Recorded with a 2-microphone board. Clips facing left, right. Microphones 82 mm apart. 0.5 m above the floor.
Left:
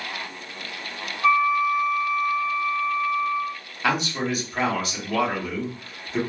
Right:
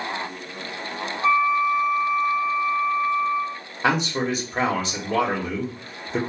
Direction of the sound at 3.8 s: 30° right (ahead or behind).